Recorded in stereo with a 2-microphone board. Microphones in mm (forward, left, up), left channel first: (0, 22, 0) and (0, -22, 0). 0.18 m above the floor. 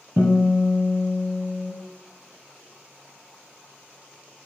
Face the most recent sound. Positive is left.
turn(degrees=-50)  # may be behind; listen again after turning